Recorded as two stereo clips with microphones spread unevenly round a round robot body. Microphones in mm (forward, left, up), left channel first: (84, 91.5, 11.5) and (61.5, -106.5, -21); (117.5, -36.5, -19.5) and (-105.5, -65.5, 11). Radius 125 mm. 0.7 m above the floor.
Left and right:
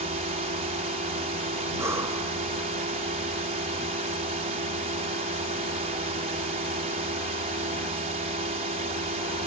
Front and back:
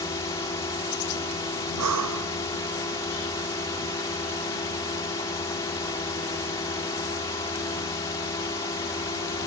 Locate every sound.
0.0 s a drone: 60° right
1.8 s breathing: straight behind